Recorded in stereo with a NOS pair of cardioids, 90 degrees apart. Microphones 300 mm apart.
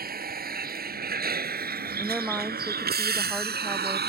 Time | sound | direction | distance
0.0 | a vehicle | 30° right | ?
2.0 | a woman speaking | 5° right | ?